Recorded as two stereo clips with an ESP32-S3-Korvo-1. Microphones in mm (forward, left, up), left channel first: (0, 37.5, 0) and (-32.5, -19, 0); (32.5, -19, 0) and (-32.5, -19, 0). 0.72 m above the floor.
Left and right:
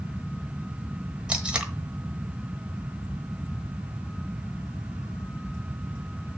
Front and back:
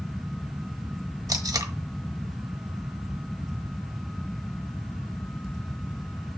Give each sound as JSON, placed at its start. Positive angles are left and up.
{"t": 1.3, "sound": "tape being pulled", "azimuth_deg": 165, "distance_m": 1.1}